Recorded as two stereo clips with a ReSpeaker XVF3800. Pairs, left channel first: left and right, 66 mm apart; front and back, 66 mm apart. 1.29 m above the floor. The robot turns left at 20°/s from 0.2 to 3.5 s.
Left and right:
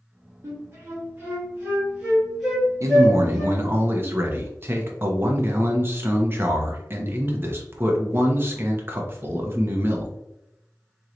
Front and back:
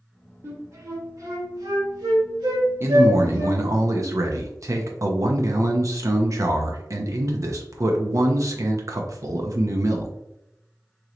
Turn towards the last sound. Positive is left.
turn(degrees=-140)